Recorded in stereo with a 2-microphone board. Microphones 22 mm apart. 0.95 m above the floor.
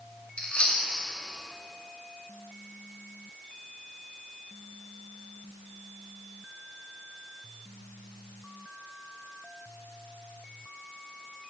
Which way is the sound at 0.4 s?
60° left (ahead or behind).